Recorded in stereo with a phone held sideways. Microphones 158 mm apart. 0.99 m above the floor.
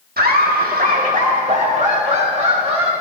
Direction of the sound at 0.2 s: 80° right.